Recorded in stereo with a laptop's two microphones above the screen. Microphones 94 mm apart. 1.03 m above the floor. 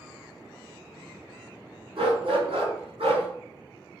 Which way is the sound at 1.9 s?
65° right (ahead or behind).